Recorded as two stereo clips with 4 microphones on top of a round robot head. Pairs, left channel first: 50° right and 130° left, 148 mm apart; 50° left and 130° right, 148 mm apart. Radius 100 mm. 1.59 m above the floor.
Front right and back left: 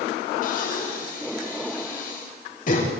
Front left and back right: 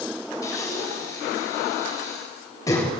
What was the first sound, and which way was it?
Breathing, 20° right.